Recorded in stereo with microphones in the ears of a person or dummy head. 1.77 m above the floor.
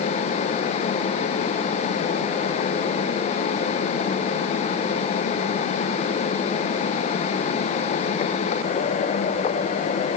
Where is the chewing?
I don't hear chewing.